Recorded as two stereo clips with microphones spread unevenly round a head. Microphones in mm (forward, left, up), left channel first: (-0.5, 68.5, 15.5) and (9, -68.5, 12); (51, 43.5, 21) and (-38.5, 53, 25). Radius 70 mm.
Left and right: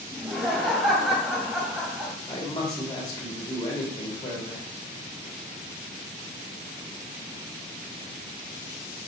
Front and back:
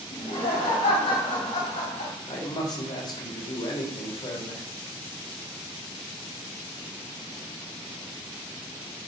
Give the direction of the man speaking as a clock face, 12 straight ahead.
11 o'clock.